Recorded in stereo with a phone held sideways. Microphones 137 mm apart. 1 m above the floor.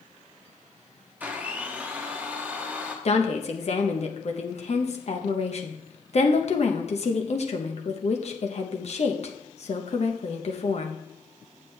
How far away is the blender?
About 1.1 m.